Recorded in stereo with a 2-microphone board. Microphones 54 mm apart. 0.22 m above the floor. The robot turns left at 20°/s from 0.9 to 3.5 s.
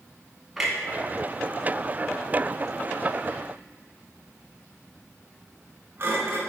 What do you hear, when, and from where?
0.6 s a clunk: 10° right (ahead or behind), 1.6 m; by 6.4 s 45° right (ahead or behind), 1.6 m